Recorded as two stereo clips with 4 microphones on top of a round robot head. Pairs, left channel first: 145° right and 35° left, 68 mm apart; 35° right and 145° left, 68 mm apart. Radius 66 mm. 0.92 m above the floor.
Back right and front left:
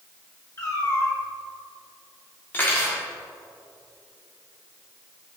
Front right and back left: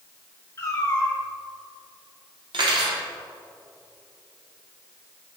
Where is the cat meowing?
90° right, 1.9 m.